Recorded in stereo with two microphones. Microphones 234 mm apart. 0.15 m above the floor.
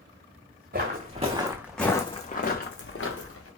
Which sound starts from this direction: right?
Footsteps, at 0.7 s.